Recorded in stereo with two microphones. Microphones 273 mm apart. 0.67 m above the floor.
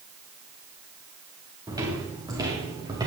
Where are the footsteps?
15° right (ahead or behind), 5.5 m.